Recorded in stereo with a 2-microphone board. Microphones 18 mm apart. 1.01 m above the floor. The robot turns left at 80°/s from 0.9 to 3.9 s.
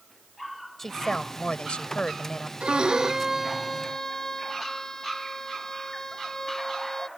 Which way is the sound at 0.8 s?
165° left.